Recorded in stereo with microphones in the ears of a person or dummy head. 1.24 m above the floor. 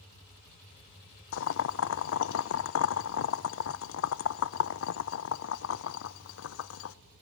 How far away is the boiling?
About 0.6 m.